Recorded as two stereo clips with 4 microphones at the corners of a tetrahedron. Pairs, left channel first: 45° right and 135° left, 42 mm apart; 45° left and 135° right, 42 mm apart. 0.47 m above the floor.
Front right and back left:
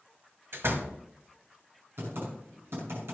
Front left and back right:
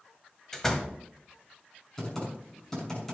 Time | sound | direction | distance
0.5 | a door slam | 120° left | 1.6 m
2.0 | typing on a keyboard | 120° left | 6 m